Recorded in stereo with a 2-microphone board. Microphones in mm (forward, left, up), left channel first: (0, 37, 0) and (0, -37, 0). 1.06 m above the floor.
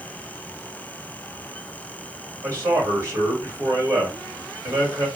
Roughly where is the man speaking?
Right.